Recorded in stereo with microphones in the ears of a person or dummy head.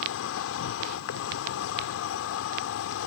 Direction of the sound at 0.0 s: 75° left (ahead or behind).